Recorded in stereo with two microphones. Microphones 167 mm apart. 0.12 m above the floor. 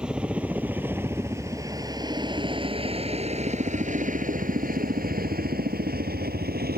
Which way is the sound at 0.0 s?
5° right (ahead or behind).